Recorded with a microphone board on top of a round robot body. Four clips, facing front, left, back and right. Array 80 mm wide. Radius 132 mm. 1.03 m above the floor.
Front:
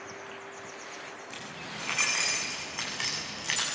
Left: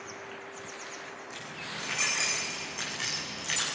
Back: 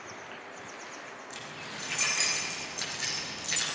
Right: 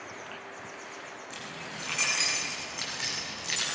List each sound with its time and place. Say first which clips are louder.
1.3 s keys jangling: right 1 dB, front 1 dB; 5° right, 9.5 m; by 3.6 s 5° left, 7.5 m